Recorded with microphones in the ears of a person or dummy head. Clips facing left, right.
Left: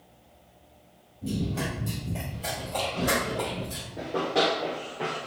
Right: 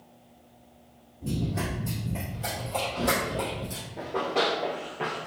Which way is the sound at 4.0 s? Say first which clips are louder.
Left 2 dB; 5° left (ahead or behind).